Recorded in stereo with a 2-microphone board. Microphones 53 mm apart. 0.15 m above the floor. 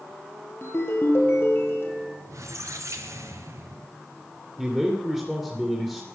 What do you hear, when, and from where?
0.6 s a ringtone: 45° left (ahead or behind), 3 m
2.3 s a squeak: 70° right (ahead or behind), 2 m
4.6 s a man speaking: 10° right (ahead or behind), 2.5 m